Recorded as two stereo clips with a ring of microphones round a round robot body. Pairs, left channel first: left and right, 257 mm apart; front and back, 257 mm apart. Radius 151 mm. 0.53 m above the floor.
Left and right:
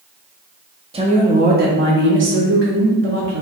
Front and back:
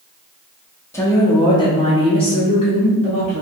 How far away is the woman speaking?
About 1.0 m.